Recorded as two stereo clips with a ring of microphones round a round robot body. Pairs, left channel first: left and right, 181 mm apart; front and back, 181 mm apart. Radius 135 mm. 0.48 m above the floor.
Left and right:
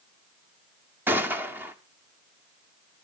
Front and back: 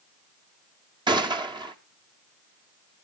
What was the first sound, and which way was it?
A gunshot, 155° right.